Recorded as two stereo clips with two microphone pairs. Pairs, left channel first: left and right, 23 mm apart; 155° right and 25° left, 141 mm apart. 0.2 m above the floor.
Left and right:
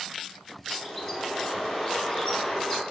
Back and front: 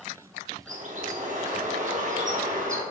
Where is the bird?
5° right, 2.5 m.